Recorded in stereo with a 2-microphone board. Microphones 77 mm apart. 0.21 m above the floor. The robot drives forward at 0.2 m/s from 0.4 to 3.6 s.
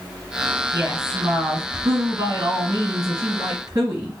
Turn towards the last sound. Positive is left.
turn(degrees=-50)  # may be behind; listen again after turning